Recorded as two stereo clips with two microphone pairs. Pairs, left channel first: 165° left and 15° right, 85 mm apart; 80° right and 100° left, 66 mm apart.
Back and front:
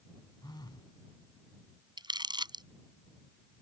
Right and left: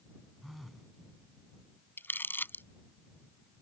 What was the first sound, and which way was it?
A phone buzzing, 170° right.